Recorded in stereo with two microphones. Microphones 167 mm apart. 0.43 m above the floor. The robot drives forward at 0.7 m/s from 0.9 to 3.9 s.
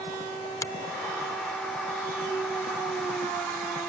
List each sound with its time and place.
0.6 s a finger snap: 20° left (ahead or behind)